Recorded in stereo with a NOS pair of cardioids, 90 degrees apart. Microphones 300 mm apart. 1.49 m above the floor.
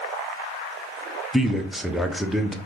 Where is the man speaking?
Straight ahead, 0.5 m.